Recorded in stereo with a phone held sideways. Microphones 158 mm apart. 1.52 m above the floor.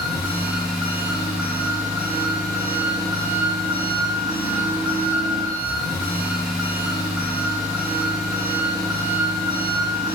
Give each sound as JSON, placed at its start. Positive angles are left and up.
{"t": 0.0, "sound": "an engine running", "side_deg": 0, "distance_m": 1.5}